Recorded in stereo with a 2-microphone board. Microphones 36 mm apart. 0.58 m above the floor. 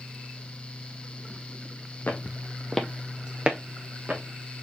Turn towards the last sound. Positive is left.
turn(degrees=-45)  # may be behind; listen again after turning